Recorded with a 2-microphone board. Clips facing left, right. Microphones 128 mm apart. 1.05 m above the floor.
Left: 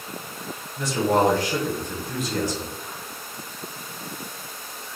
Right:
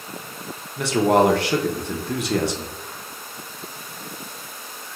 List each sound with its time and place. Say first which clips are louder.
0.8 s a man speaking: right 4 dB; 70° right (ahead or behind), 0.6 m